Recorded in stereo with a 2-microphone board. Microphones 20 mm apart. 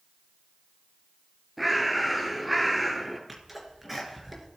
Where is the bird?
5° right (ahead or behind), 1.2 m.